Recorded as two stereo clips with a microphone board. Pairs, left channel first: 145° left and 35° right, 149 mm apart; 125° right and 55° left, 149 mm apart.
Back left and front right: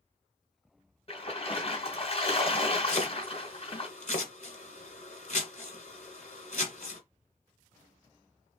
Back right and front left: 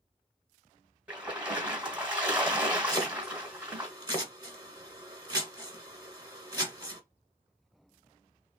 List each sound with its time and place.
1.1 s a splash: 125° left, 1.9 m
2.9 s chopping: 115° left, 1.5 m